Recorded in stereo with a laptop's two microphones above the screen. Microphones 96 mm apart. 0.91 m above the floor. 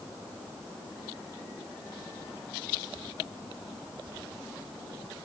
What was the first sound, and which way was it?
Only background noise.